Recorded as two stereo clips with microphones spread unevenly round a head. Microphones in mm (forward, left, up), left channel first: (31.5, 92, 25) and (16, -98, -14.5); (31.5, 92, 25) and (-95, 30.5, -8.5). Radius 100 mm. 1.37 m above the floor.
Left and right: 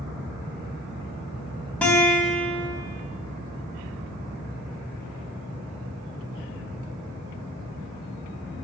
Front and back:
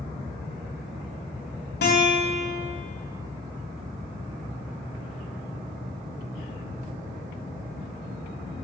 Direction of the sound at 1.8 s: Straight ahead.